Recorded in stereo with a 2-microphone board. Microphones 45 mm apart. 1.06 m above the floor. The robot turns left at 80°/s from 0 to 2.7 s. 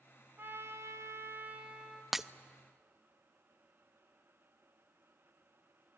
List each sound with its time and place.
0.4 s a trumpet: 50° right, 2.5 m; by 2.0 s 175° left, 2.5 m
2.1 s breaking glass: 5° right (ahead or behind), 0.6 m; by 2.2 s 15° right (ahead or behind), 0.6 m